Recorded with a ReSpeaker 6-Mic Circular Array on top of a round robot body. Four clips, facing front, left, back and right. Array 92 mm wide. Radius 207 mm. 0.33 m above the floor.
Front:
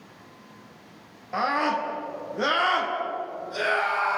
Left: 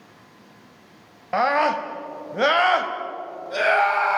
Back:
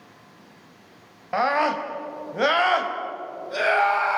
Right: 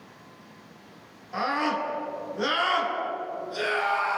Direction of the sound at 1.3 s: 120° left.